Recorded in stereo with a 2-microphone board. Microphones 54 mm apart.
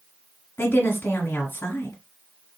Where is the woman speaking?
40° left (ahead or behind), 1.6 m.